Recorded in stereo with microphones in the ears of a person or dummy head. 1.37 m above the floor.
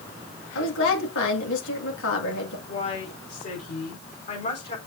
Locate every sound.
0.6 s a woman speaking: 65° left (ahead or behind), 2 m
2.7 s a woman speaking: 40° left (ahead or behind), 4.5 m